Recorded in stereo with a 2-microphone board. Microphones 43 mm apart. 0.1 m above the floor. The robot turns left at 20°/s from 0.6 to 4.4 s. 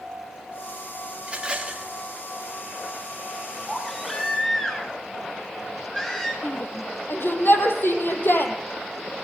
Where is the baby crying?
Centre (ahead or behind), 7 m; by 6.3 s 15° left (ahead or behind), 7 m.